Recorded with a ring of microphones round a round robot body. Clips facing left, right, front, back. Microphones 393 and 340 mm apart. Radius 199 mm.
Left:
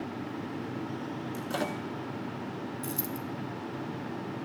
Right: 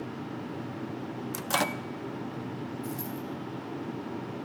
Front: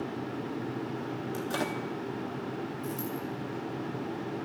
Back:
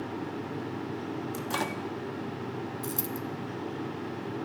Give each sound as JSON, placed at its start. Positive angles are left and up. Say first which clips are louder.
{"t": 1.3, "sound": "a microwave", "louder": "right 1 dB, front 1 dB", "azimuth_deg": -110, "distance_m": 0.6}
{"t": 2.8, "sound": "a dropped coin", "louder": "even, even", "azimuth_deg": 145, "distance_m": 1.5}